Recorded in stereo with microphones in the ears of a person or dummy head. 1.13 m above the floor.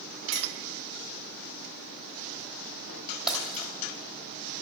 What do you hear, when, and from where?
0.3 s a clink: 45° right (ahead or behind), 2 m
3.3 s breaking glass: centre (ahead or behind), 3 m